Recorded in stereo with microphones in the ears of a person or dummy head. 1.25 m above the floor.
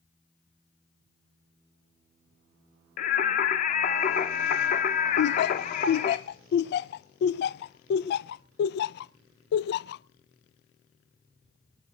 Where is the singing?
45° left (ahead or behind), 0.9 m.